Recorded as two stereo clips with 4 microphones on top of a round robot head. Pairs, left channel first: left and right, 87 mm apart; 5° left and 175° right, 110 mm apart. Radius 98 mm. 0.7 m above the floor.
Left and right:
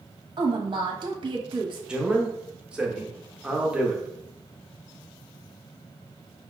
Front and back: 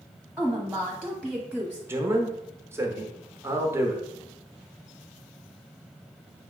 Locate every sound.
0.4 s a woman speaking: 80° right, 1.0 m
1.9 s a man speaking: 155° right, 0.9 m